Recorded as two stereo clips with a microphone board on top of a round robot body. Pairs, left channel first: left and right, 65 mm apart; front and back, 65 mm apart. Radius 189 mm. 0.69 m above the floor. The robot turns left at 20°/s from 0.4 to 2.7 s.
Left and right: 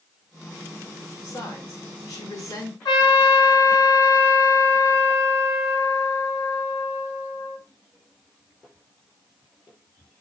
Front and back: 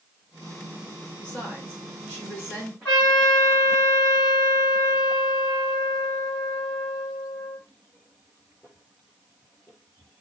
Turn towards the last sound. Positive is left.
turn(degrees=65)